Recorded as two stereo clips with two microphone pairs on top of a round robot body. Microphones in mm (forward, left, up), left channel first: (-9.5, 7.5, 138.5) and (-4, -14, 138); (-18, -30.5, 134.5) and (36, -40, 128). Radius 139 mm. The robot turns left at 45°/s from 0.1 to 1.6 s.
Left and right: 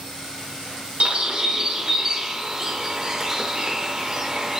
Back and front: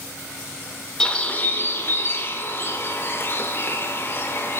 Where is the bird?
110° right, 0.5 m; by 4.6 s 135° right, 0.5 m.